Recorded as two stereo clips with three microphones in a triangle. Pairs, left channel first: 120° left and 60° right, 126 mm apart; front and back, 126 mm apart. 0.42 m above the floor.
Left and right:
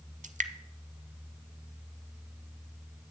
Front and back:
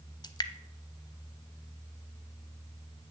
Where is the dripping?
55° right, 0.5 m.